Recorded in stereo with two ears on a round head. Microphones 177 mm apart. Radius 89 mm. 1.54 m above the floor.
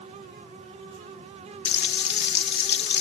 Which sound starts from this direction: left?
Frying, at 1.6 s.